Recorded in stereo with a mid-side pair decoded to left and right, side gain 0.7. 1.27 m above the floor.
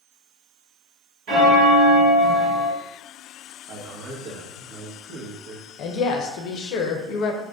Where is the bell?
60° right, 1.7 m.